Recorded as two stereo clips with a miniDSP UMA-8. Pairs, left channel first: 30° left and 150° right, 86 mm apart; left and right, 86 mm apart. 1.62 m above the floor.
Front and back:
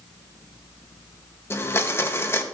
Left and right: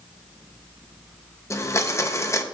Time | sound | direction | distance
1.5 | a blender | 65° left | 0.7 m